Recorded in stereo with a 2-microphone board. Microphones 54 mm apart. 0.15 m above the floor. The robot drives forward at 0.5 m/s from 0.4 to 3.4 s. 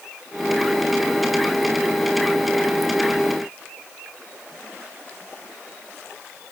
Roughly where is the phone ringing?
No phone ringing in this recording.